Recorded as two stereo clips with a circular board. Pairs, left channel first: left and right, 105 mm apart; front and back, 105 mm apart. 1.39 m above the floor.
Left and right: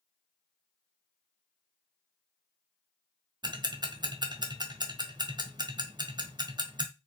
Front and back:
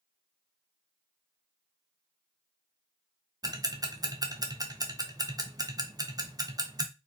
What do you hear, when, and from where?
3.4 s ticking: 130° right, 0.8 m